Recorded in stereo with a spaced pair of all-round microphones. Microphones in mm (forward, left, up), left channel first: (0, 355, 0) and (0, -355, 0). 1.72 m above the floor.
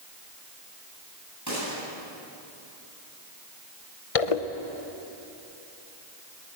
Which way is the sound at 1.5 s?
25° right (ahead or behind).